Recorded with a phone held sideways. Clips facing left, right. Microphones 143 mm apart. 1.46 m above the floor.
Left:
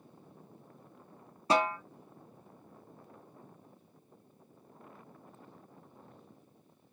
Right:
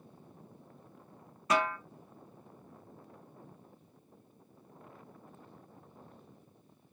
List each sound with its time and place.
1.5 s a snare drum: 30° left (ahead or behind), 0.5 m